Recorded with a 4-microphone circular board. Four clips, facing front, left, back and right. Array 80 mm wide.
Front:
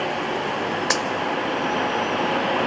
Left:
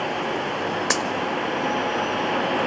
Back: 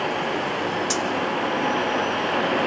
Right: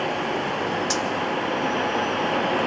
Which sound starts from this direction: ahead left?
A dropped coin, at 0.9 s.